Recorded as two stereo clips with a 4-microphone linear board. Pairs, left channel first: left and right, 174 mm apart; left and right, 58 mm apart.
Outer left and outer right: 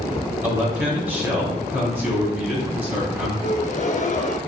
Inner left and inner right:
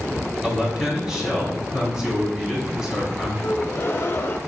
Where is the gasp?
45° left (ahead or behind), 0.5 m.